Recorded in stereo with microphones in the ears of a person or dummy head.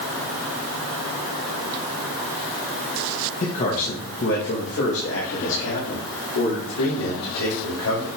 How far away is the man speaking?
About 1.4 m.